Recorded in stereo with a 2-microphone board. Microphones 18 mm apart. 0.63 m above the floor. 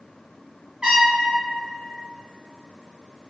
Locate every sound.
0.8 s a trumpet: 40° right (ahead or behind), 1.1 m